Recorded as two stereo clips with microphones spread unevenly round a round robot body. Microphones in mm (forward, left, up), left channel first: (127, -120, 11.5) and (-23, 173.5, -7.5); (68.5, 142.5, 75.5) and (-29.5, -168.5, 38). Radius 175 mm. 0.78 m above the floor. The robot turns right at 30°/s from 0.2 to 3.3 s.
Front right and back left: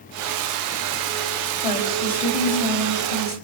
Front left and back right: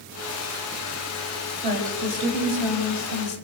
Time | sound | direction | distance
1.6 | a woman speaking | 50° right | 5.5 m